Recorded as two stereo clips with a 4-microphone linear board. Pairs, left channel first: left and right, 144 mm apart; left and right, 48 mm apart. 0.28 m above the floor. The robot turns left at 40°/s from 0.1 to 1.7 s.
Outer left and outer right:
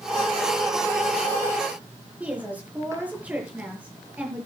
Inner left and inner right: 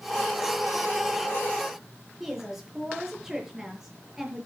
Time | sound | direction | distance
2.2 | a woman speaking | 10° right (ahead or behind) | 6 m